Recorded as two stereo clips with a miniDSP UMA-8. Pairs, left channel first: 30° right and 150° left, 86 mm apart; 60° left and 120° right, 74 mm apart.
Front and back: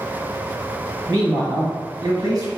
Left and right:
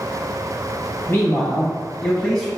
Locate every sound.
1.1 s a man speaking: 110° left, 1.9 m; by 2.5 s 140° left, 1.4 m